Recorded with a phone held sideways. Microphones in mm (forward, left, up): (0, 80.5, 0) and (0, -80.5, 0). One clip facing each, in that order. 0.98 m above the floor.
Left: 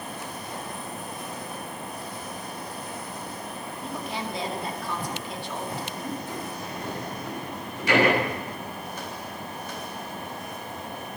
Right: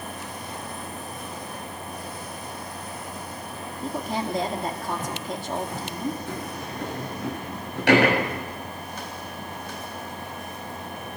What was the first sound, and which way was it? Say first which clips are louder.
A woman speaking: right 5 dB; 40° right (ahead or behind).